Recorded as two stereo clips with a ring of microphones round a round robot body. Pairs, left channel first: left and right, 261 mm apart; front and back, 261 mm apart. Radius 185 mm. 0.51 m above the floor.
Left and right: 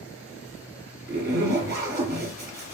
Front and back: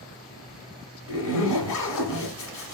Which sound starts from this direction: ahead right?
A zipper, at 1.1 s.